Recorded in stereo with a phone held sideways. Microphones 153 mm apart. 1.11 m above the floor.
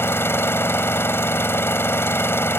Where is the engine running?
15° left (ahead or behind).